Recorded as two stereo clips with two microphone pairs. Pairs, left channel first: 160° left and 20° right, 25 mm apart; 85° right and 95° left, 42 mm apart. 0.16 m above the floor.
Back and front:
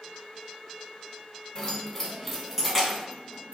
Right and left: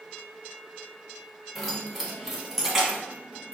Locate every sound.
1.6 s keys jangling: 175° right, 1.0 m; by 3.5 s 25° left, 1.1 m